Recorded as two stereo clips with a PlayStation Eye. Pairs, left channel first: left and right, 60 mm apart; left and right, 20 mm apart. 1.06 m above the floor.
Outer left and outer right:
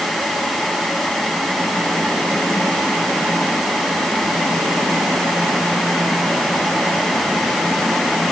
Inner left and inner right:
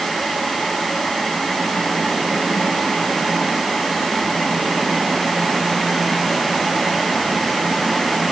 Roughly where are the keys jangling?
No keys jangling in this recording.